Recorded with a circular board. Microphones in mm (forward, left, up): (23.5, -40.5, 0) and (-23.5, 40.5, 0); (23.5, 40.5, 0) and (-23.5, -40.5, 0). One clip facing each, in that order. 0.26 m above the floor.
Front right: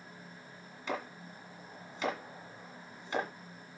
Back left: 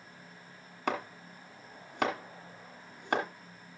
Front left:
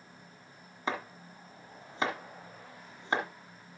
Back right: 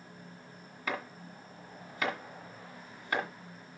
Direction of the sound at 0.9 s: 120° left.